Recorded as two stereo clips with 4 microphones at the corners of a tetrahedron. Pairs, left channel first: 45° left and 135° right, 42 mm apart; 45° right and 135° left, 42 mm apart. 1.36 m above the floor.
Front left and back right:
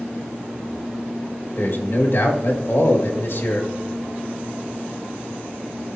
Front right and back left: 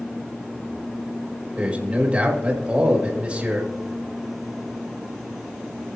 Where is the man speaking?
75° left, 2 m.